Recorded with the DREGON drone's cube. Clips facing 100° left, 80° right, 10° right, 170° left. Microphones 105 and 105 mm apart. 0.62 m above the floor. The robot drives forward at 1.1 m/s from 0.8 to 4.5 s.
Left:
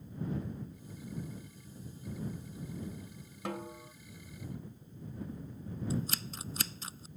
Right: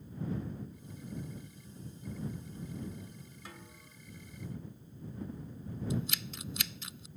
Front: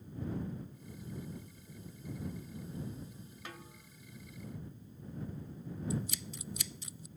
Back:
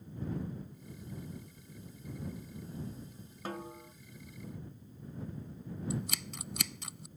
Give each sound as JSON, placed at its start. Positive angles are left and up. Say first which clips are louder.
{"t": 3.5, "sound": "a snare drum", "louder": "left 11 dB, back 12 dB", "azimuth_deg": 120}
{"t": 5.9, "sound": "scissors", "louder": "left 1 dB, even", "azimuth_deg": 155}